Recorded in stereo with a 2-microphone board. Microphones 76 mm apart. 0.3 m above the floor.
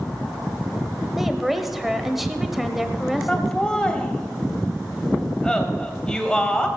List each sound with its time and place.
1.2 s a woman speaking: 5° right (ahead or behind), 1.1 m
3.3 s laughter: 10° left (ahead or behind), 1.6 m